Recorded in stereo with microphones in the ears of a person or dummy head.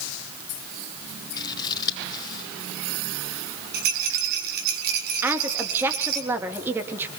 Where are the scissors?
25° left (ahead or behind), 5 m.